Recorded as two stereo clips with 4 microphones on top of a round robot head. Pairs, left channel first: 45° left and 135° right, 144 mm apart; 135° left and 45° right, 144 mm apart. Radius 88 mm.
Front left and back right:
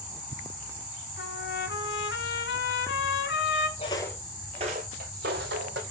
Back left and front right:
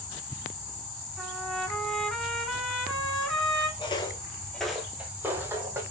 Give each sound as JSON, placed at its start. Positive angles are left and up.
{"t": 1.2, "sound": "a trumpet", "azimuth_deg": 45, "distance_m": 1.4}
{"t": 3.8, "sound": "footsteps", "azimuth_deg": 85, "distance_m": 0.8}